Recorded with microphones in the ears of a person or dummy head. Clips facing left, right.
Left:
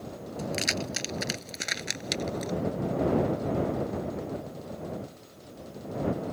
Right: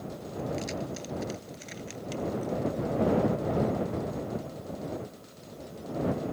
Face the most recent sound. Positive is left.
turn(degrees=85)